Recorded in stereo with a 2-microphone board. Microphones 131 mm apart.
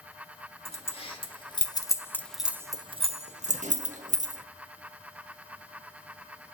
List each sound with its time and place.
0.7 s keys jangling: 50° left (ahead or behind), 1.3 m; by 4.4 s 75° right (ahead or behind), 1.2 m